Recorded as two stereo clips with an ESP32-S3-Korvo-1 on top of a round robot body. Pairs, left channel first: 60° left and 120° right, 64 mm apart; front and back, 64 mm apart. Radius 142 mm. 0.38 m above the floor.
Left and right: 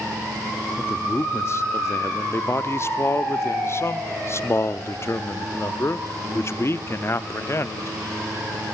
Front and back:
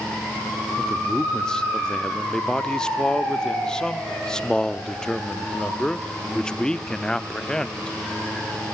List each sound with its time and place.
0.8 s a man speaking: 75° left, 1.0 m